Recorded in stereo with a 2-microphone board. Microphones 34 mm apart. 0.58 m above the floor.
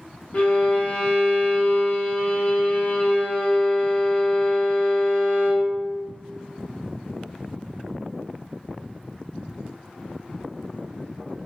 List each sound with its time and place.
0.3 s a violin: 40° left (ahead or behind), 0.7 m